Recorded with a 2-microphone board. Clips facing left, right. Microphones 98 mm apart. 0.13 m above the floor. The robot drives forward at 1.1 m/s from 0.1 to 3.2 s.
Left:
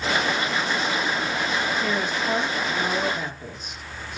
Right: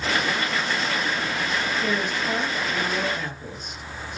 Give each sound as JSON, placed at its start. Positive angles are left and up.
{"t": 1.8, "sound": "a woman speaking", "side_deg": 10, "distance_m": 3.5}